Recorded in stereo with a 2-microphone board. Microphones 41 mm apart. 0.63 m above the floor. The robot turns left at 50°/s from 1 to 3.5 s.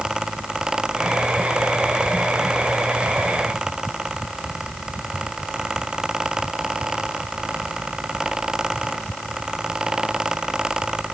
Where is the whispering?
I don't hear whispering.